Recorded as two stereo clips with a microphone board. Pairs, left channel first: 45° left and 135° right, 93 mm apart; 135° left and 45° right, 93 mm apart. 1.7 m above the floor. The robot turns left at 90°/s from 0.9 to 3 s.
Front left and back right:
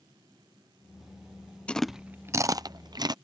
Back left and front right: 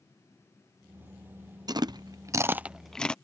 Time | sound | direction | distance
1.7 | chewing | 30° right | ?